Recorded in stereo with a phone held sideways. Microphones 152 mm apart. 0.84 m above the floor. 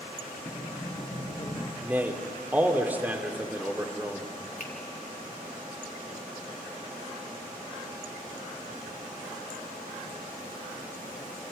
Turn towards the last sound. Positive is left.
turn(degrees=65)  # may be behind; listen again after turning